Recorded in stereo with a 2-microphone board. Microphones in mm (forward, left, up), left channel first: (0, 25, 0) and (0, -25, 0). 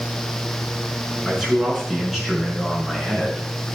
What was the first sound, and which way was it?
A man speaking, 5° right (ahead or behind).